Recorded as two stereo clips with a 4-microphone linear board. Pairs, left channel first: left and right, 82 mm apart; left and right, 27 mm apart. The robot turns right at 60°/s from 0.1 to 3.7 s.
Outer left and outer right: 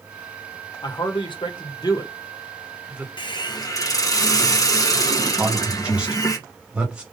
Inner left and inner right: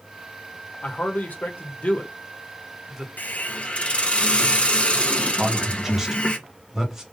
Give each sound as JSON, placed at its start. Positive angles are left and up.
{"t": 0.8, "sound": "a man speaking", "side_deg": 60, "distance_m": 1.5}
{"t": 3.2, "sound": "a hiss", "azimuth_deg": 100, "distance_m": 1.0}
{"t": 5.4, "sound": "a man speaking", "side_deg": -10, "distance_m": 2.0}